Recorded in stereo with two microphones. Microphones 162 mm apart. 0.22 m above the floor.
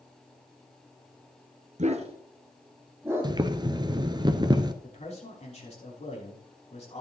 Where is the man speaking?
45° left (ahead or behind), 5 m.